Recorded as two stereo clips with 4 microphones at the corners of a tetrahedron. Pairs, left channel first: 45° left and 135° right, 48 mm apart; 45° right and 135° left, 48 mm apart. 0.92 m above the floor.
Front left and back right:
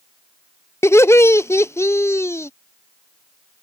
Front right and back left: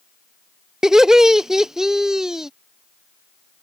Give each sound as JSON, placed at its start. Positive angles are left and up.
{"t": 0.8, "sound": "laughter", "azimuth_deg": 55}